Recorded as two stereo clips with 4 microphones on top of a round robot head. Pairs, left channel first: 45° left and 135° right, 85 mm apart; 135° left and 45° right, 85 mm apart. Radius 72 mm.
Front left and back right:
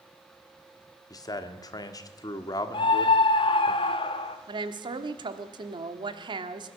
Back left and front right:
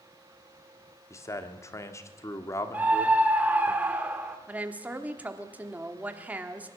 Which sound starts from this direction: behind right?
A woman speaking, at 4.5 s.